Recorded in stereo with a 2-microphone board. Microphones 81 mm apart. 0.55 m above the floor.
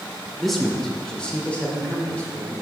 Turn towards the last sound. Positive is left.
turn(degrees=15)  # may be behind; listen again after turning